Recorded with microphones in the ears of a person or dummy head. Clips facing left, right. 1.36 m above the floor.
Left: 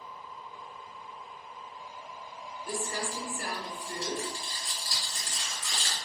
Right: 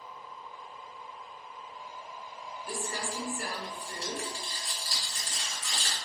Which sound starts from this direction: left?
Crumpling, at 2.7 s.